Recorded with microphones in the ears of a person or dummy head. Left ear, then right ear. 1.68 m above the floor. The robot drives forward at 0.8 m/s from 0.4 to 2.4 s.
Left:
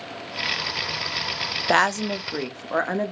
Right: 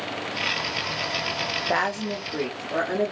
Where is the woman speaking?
90° left, 0.5 m; by 3.1 s 45° left (ahead or behind), 0.8 m.